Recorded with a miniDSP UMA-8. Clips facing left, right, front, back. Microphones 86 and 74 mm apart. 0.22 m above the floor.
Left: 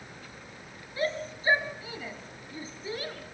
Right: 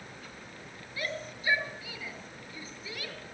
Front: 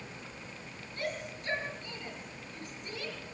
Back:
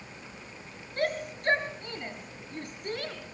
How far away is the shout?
About 4 m.